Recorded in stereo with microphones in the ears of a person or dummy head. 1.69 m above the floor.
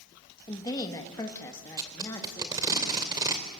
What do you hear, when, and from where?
0.5 s a woman speaking: 20° left (ahead or behind), 2 m; by 2.7 s 15° left (ahead or behind), 3.5 m
1.8 s tape being pulled: 20° right (ahead or behind), 2.5 m